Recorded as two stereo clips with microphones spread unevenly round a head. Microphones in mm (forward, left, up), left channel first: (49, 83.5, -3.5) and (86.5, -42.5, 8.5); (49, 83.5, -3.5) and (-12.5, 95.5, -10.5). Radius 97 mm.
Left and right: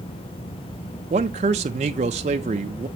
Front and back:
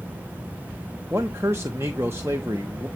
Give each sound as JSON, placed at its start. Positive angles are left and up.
{"t": 1.1, "sound": "a man speaking", "azimuth_deg": -125, "distance_m": 0.6}